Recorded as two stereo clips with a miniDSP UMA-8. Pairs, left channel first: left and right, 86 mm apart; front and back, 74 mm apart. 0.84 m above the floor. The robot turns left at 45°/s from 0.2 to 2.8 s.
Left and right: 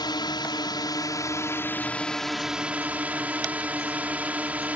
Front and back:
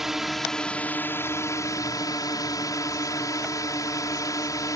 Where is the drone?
95° left; by 4.8 s 20° right.